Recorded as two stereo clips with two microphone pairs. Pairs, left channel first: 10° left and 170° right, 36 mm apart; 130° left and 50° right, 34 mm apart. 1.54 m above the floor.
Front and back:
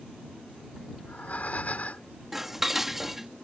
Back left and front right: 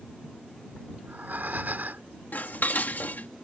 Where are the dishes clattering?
110° left.